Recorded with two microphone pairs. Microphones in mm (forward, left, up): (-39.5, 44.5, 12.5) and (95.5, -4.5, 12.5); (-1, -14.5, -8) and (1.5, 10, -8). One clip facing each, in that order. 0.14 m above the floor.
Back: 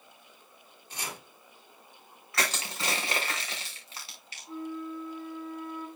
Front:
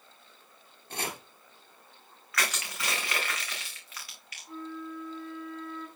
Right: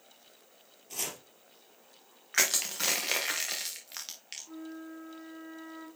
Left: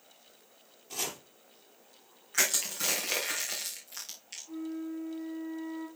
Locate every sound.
0.9 s chopping: straight ahead, 2 m
2.3 s crushing: 140° right, 4 m
4.5 s a flute: 120° right, 7.5 m